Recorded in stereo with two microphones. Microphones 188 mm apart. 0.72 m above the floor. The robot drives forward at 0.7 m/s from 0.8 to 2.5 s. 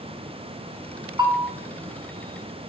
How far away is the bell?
About 2.5 m.